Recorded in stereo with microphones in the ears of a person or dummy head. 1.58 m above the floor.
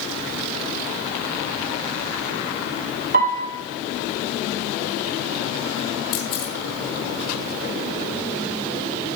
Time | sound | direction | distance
3.1 | a piano | 40° right (ahead or behind) | 1.3 m
6.1 | a camera shutter | 30° left (ahead or behind) | 1.8 m